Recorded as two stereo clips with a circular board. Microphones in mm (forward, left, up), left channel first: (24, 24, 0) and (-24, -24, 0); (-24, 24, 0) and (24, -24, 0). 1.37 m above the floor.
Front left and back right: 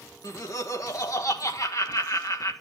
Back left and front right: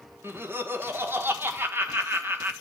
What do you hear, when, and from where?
0.2 s laughter: 10° left, 1.4 m